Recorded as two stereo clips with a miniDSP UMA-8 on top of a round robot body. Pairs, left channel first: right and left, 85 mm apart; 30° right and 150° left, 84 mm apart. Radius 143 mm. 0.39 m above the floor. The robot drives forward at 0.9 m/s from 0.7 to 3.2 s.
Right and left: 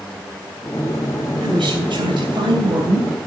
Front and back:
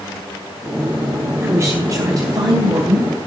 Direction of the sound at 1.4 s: 95° left.